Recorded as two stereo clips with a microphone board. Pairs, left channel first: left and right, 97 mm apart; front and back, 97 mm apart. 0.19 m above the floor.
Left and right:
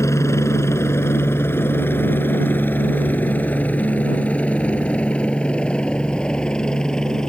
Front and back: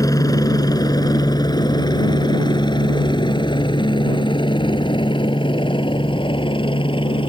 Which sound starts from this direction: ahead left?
A helicopter, at 0.0 s.